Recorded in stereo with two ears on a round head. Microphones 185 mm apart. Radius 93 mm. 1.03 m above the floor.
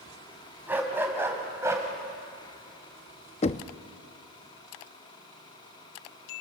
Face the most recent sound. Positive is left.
turn(degrees=35)  # may be behind; listen again after turning